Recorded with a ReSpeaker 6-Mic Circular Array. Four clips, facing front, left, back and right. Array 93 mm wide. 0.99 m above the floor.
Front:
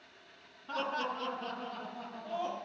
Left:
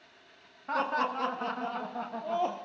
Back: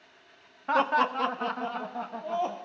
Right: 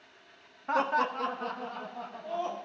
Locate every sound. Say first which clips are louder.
0.7 s laughter: right 2 dB, back 11 dB; 170° right, 1.2 m; by 2.5 s 130° left, 1.4 m